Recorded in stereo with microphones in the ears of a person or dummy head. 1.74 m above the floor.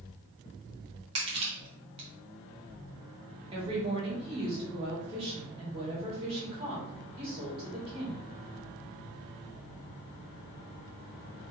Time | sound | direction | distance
1.1 | crushing | 25° right (ahead or behind) | 1.2 m
3.5 | a woman speaking | 30° right (ahead or behind) | 2 m